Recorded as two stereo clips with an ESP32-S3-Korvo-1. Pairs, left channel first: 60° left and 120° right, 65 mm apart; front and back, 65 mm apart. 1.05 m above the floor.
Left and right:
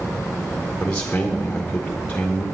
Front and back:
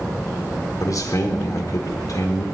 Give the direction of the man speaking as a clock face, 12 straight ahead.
12 o'clock.